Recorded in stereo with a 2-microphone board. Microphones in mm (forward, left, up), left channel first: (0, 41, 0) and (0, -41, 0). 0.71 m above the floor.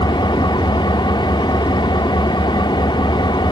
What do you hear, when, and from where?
0.0 s an engine running: 70° left (ahead or behind), 1.0 m